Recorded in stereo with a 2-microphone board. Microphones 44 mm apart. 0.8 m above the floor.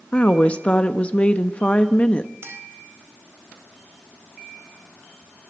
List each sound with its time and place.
0.1 s a woman speaking: 25° left (ahead or behind), 1.1 m
2.4 s a clink: 65° right (ahead or behind), 3.5 m